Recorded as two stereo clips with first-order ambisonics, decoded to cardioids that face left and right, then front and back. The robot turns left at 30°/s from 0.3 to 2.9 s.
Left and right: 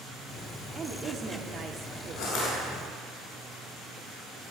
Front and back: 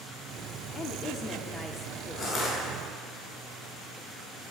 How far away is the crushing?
About 3.5 m.